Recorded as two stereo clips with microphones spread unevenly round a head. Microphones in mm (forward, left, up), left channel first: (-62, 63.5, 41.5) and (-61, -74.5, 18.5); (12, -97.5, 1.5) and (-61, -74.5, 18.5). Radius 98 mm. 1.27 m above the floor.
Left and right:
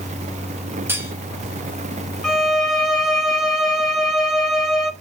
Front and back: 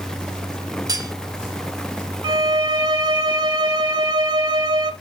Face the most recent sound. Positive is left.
turn(degrees=175)